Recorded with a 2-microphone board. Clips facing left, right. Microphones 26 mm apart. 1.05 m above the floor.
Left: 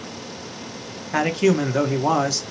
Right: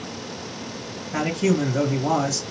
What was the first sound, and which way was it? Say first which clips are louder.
A man speaking: left 3 dB; 45° left (ahead or behind).